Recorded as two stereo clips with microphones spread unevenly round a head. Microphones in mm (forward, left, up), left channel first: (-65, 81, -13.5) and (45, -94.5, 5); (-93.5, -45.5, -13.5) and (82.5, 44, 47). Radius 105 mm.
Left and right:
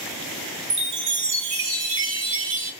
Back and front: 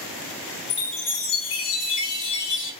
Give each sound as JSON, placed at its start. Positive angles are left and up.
{"t": 0.7, "sound": "a chime", "azimuth_deg": -80, "distance_m": 1.2}